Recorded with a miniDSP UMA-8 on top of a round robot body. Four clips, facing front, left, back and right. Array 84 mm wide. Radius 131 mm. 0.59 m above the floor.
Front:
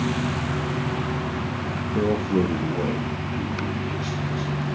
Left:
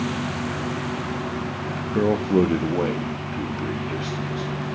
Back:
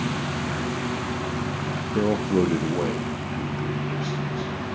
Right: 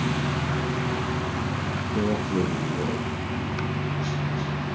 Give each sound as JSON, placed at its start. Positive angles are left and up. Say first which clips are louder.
{"t": 1.9, "sound": "a man speaking", "louder": "left 7 dB, even", "azimuth_deg": 120, "distance_m": 0.7}